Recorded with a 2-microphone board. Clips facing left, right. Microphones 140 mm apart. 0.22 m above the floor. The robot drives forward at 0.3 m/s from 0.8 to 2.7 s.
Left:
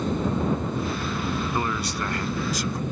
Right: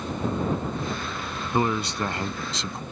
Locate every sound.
0.0 s an aircraft: 45° left (ahead or behind); by 2.9 s 55° left (ahead or behind)
1.5 s a man speaking: 20° right (ahead or behind); by 2.8 s 25° right (ahead or behind)